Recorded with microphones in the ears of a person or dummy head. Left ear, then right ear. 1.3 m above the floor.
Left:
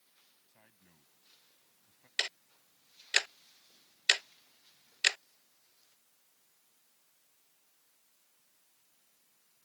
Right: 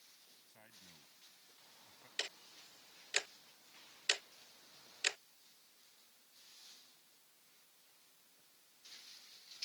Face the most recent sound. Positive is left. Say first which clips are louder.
# left 8 dB
turn(degrees=35)  # may be behind; listen again after turning